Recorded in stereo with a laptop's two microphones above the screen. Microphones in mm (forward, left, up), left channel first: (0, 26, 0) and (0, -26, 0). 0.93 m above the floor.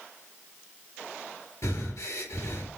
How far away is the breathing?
About 1.9 m.